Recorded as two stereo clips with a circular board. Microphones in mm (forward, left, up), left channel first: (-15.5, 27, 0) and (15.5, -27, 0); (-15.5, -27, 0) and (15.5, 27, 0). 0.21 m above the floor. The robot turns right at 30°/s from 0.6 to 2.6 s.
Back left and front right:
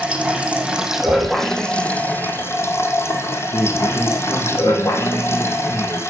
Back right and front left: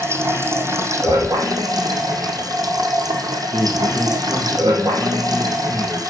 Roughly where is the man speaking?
Left.